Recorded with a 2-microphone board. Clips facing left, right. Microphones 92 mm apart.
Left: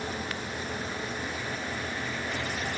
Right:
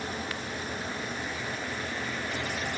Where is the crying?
I don't hear crying.